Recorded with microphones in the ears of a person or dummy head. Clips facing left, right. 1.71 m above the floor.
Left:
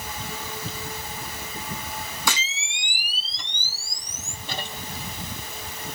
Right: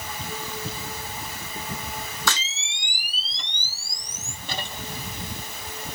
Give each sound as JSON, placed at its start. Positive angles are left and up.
{"t": 2.3, "sound": "a camera shutter", "side_deg": 15, "distance_m": 0.5}